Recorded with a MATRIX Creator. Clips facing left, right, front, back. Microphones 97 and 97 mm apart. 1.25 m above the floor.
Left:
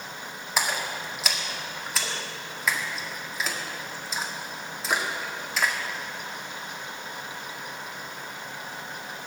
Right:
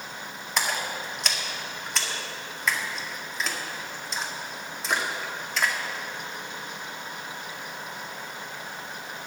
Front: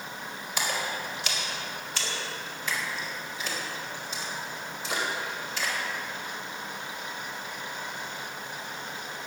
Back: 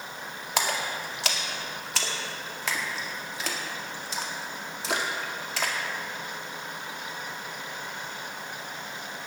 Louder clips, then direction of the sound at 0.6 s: Even, back 2 dB; 175° left.